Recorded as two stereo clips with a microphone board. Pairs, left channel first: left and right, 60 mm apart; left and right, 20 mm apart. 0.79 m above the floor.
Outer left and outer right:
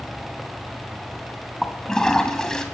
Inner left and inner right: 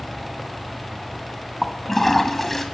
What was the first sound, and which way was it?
A toilet flushing, 10° left (ahead or behind).